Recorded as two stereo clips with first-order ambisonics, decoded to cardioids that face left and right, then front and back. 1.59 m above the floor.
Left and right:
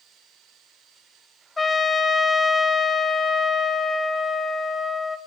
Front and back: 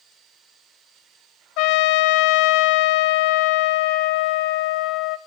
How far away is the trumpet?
About 0.5 m.